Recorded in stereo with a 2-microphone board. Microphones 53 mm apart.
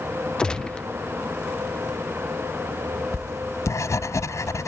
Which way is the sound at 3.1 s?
75° left (ahead or behind).